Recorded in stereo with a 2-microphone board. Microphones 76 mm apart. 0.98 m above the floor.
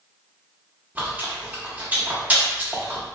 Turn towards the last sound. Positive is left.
turn(degrees=-25)  # may be behind; listen again after turning